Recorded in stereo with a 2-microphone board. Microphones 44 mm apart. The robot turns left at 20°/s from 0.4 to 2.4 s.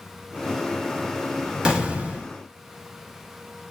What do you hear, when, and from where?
1.6 s an explosion: 20° right (ahead or behind), 0.7 m; by 2.3 s 30° right (ahead or behind), 0.7 m